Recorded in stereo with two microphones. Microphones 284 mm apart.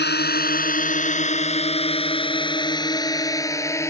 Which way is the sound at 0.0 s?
35° left (ahead or behind).